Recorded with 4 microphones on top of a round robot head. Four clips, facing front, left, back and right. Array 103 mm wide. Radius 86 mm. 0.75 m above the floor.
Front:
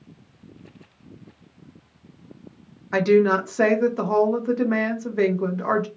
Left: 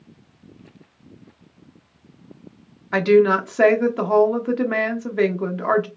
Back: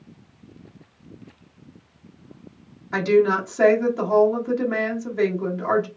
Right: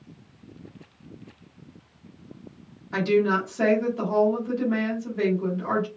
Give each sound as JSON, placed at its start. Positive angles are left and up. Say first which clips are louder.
{"t": 2.9, "sound": "a woman speaking", "louder": "left 7 dB, front 1 dB", "azimuth_deg": 65, "distance_m": 1.3}